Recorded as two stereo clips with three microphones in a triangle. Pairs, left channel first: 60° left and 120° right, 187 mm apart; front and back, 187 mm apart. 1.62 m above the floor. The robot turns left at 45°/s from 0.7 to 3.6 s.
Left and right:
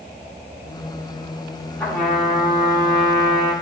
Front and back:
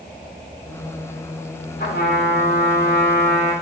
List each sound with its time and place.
1.8 s a trumpet: 15° right, 2.0 m; by 3.5 s 90° right, 2.0 m